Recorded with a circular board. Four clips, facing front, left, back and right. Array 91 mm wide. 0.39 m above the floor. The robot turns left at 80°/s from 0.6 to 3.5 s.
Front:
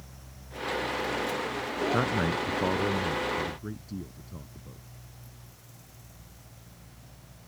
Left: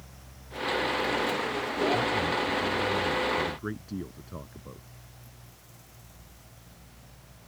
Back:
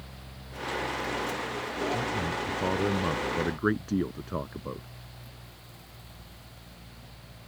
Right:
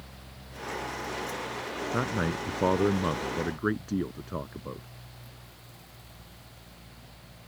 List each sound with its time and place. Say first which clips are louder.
1.9 s a man speaking: left 2 dB, front 3 dB; 30° right; by 4.9 s 155° right